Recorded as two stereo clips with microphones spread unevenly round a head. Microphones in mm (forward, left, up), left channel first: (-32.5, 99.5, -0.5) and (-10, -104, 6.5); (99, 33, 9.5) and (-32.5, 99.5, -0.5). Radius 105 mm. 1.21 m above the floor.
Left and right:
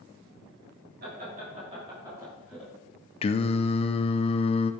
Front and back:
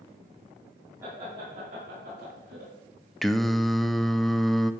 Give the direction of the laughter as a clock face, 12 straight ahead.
4 o'clock.